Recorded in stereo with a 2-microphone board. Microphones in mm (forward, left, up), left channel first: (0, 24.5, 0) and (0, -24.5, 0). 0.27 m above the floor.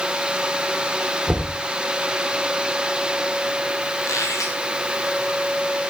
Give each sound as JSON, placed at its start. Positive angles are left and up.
{"t": 1.3, "sound": "knocking", "side_deg": 15, "distance_m": 4.5}
{"t": 4.0, "sound": "a squeak", "side_deg": 85, "distance_m": 5.0}